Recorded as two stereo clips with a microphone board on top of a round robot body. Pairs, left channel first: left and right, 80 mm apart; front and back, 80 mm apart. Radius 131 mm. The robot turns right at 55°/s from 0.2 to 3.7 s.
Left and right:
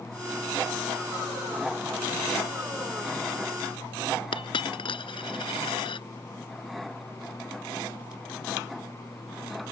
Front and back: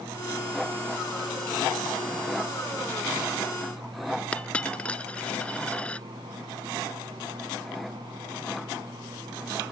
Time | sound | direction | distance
4.3 | a dropped coin | 75° left | ?